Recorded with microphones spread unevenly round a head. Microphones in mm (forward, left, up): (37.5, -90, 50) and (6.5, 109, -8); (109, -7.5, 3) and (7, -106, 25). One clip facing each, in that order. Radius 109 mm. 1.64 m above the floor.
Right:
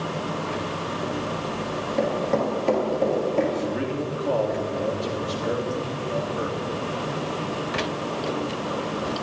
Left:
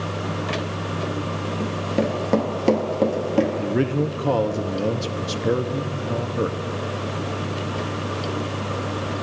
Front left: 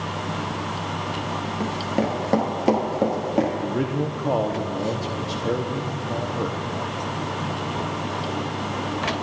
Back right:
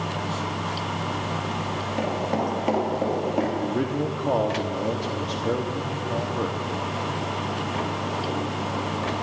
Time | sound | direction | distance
1.6 | running footsteps | 45° left | 1.7 m
3.6 | a man speaking | 140° left | 0.6 m